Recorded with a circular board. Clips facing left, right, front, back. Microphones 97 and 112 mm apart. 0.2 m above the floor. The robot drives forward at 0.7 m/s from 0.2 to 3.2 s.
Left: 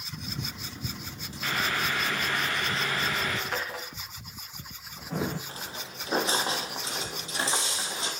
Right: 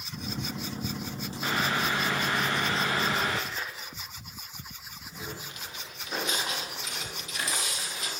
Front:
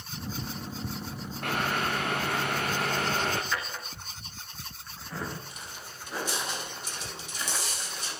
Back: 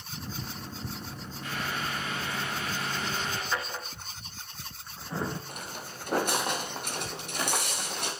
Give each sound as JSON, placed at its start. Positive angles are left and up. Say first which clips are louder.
{"t": 1.4, "sound": "boiling", "louder": "right 1 dB, front 5 dB", "azimuth_deg": -25, "distance_m": 8.5}
{"t": 3.5, "sound": "a drawer", "louder": "left 4 dB, back 1 dB", "azimuth_deg": 115, "distance_m": 4.5}
{"t": 5.5, "sound": "footsteps", "louder": "left 3 dB, back 4 dB", "azimuth_deg": 145, "distance_m": 5.5}